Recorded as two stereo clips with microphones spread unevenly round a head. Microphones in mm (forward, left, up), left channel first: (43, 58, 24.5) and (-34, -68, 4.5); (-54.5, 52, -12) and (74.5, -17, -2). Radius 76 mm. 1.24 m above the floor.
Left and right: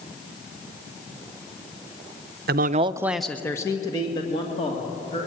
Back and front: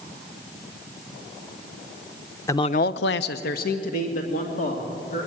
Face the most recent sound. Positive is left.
turn(degrees=115)